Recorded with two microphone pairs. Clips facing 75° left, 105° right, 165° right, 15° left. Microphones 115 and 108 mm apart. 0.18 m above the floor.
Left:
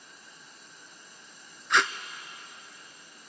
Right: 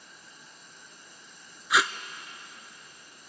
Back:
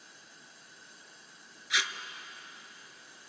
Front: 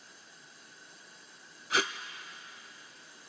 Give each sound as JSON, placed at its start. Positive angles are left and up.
{"t": 1.7, "sound": "tape being pulled", "azimuth_deg": -20, "distance_m": 0.5}